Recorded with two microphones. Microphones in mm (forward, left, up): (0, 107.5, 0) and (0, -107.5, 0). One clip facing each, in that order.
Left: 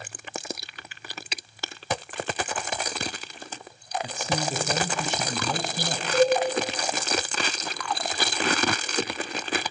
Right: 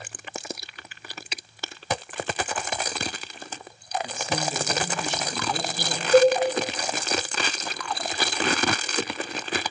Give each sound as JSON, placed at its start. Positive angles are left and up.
{"t": 4.0, "sound": "a man speaking", "side_deg": 35, "distance_m": 2.0}
{"t": 6.1, "sound": "a cowbell", "side_deg": -50, "distance_m": 4.0}